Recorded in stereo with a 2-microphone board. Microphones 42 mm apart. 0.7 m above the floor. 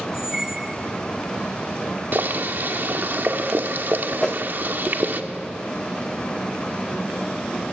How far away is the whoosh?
About 0.8 m.